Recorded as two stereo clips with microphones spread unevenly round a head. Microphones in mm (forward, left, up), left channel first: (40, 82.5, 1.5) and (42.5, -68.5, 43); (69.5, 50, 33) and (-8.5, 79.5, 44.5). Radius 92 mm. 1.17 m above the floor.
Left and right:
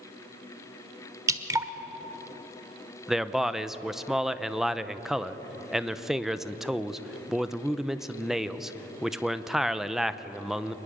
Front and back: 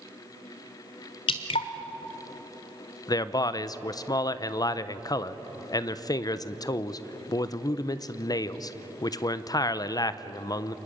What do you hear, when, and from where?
1.3 s dripping: 35° right, 1.3 m
3.1 s a man speaking: 5° left, 0.8 m